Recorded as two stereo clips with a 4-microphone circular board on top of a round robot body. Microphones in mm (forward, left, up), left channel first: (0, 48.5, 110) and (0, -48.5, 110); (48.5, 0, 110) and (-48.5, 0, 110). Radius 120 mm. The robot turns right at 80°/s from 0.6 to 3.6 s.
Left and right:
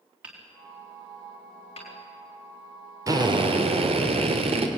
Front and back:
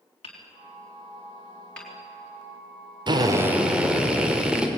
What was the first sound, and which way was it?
Hammering, 15° right.